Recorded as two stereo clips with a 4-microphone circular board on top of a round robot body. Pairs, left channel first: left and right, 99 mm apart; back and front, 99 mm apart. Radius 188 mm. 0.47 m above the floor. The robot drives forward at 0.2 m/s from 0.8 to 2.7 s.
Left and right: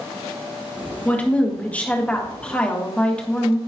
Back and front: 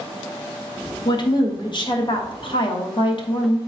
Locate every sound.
1.1 s a woman speaking: 160° left, 1.4 m; by 3.6 s 165° left, 1.6 m